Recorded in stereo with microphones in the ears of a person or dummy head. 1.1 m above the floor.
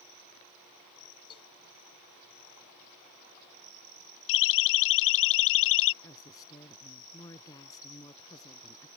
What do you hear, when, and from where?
1.3 s a cowbell: 30° left (ahead or behind)
4.3 s a siren: 75° left (ahead or behind)
6.0 s a woman speaking: 25° left (ahead or behind)